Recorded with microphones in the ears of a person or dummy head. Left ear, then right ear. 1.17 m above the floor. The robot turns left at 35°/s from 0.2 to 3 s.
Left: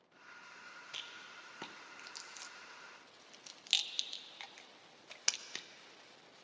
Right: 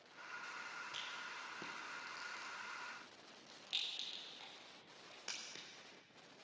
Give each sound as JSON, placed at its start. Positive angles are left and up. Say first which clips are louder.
{"t": 0.9, "sound": "a rattle", "louder": "left 3 dB", "side_deg": 20, "distance_m": 0.5}